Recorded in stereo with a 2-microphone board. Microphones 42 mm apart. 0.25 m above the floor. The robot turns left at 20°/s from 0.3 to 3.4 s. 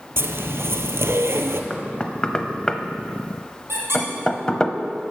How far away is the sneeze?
No sneeze in this recording.